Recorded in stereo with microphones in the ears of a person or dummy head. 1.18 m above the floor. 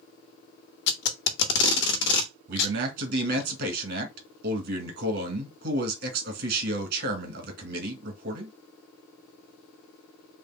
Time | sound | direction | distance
0.9 | tape being pulled | 70° left (ahead or behind) | 1.1 m
2.5 | a man speaking | 60° right (ahead or behind) | 1.8 m